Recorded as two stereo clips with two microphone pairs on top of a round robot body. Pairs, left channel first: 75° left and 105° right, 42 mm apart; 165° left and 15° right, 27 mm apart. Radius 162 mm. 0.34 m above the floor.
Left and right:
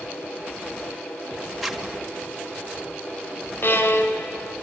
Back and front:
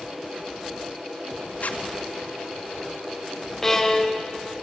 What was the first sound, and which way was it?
A zipper, 160° left.